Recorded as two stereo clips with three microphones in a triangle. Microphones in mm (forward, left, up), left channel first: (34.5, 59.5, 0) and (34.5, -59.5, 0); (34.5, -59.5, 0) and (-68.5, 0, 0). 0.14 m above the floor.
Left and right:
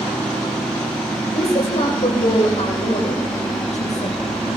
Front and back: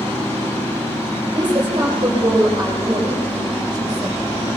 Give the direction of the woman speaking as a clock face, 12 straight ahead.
9 o'clock.